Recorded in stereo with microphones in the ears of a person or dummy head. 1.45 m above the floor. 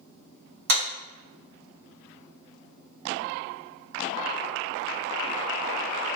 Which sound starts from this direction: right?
A clap, at 0.7 s.